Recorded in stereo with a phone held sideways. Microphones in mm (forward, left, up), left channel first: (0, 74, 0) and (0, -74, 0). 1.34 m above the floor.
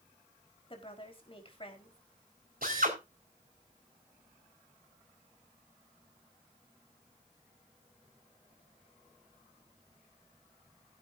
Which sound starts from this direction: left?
A woman speaking, at 0.7 s.